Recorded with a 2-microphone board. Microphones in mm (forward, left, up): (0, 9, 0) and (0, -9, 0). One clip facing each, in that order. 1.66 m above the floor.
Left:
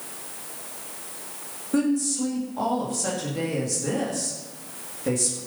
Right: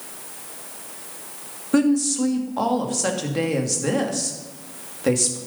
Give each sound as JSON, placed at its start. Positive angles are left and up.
{"t": 1.7, "sound": "a woman speaking", "side_deg": -45, "distance_m": 2.5}